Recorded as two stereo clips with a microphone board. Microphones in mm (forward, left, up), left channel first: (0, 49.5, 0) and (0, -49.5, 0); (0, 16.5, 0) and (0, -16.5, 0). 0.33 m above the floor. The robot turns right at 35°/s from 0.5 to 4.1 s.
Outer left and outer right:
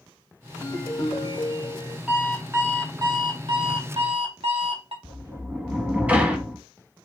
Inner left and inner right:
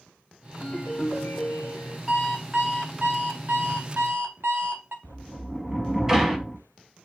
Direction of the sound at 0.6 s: 50° left.